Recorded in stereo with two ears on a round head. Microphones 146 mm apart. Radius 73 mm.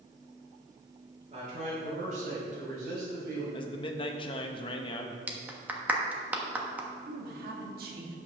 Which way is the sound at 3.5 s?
30° left (ahead or behind).